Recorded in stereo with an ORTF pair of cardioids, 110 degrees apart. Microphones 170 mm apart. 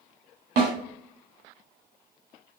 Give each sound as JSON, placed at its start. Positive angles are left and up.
{"t": 0.6, "sound": "a snare drum", "azimuth_deg": -65, "distance_m": 1.5}